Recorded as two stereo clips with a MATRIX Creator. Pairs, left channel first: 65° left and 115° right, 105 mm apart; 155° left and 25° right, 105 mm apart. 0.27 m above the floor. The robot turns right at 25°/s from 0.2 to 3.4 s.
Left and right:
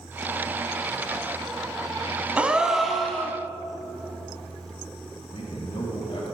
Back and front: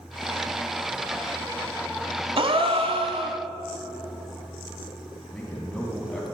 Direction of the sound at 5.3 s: 75° left.